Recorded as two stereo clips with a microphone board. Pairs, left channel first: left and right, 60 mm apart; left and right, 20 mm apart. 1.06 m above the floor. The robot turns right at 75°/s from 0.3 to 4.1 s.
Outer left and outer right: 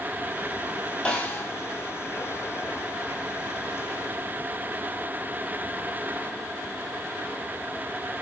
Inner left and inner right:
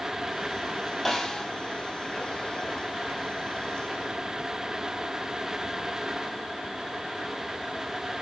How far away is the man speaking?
I don't hear a man speaking.